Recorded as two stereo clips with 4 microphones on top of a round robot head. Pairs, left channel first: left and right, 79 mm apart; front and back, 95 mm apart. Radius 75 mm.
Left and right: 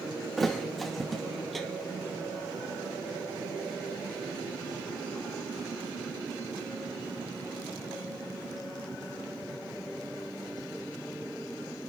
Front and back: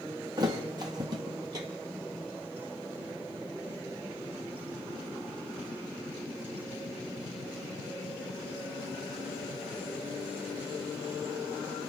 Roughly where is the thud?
Behind.